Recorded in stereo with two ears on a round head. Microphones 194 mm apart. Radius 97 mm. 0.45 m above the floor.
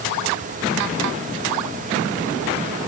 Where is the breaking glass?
No breaking glass in this recording.